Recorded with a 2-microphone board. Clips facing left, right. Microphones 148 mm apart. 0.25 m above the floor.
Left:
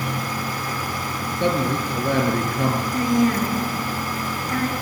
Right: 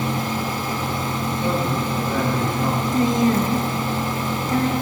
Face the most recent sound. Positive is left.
turn(degrees=-25)  # may be behind; listen again after turning